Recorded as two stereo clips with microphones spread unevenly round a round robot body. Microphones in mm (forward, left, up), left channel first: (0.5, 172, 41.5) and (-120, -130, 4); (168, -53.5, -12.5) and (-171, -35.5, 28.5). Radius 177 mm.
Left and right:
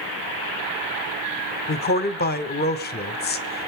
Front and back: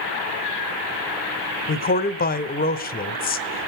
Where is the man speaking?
20° left, 1.1 m.